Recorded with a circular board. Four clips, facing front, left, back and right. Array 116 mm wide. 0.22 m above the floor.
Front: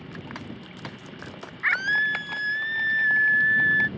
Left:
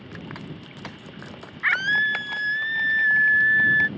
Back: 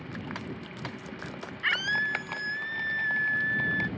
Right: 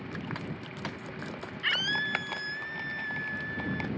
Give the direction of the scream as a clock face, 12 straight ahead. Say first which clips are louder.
Left 10 dB, front 5 dB; 10 o'clock.